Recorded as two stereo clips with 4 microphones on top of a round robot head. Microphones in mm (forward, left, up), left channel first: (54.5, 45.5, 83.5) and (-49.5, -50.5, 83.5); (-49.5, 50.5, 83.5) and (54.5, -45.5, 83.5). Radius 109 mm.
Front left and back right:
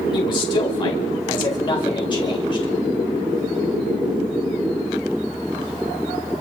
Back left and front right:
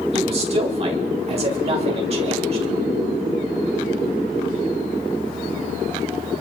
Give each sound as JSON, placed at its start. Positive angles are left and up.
{"t": 0.1, "sound": "a man speaking", "azimuth_deg": -5, "distance_m": 2.0}